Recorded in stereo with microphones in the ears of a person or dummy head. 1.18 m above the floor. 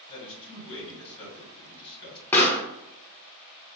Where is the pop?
10° left (ahead or behind), 0.9 m.